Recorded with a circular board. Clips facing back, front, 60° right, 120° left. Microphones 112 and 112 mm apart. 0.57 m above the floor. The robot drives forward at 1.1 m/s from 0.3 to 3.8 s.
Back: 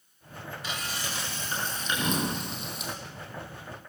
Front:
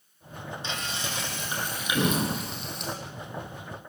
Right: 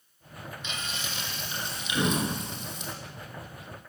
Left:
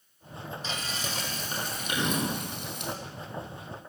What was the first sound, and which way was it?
Frying, 65° left.